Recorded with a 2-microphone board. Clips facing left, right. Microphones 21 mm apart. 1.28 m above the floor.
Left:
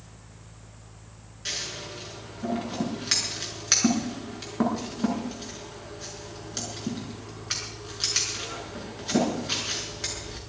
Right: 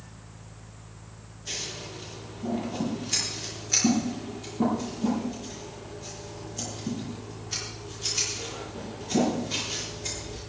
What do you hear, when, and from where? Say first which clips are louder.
1.4 s scissors: left 2 dB; 85° left, 6.5 m